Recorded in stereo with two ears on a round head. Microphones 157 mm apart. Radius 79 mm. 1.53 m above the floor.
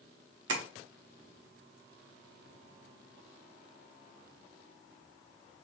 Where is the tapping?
75° right (ahead or behind), 1.0 m.